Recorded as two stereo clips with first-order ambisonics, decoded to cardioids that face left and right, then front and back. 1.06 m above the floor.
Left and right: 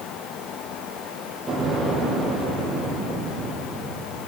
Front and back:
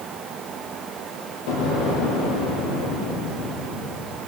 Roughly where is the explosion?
Ahead.